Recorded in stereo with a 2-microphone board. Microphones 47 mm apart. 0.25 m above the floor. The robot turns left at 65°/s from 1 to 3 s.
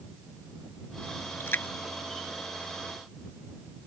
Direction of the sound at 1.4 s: 65° left (ahead or behind).